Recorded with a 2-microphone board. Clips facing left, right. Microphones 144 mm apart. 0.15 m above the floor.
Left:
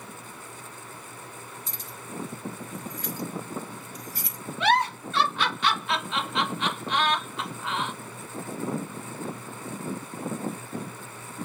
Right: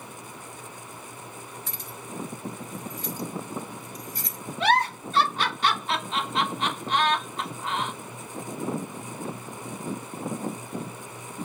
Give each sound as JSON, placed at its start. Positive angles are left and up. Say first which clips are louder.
{"t": 1.7, "sound": "keys jangling", "louder": "right 1 dB", "side_deg": -55, "distance_m": 1.4}
{"t": 4.6, "sound": "a giggle", "louder": "even", "side_deg": -35, "distance_m": 1.4}